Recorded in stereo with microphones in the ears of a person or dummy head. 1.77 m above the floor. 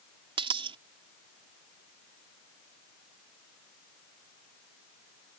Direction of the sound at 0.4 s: 25° right (ahead or behind).